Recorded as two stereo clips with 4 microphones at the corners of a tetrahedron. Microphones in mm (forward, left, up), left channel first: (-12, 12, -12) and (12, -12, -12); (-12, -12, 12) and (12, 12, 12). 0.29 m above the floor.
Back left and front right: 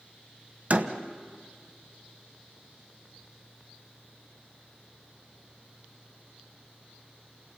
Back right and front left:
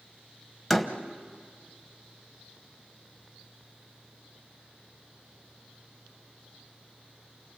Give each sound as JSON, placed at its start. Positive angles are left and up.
{"t": 0.7, "sound": "a door slam", "azimuth_deg": -45, "distance_m": 1.3}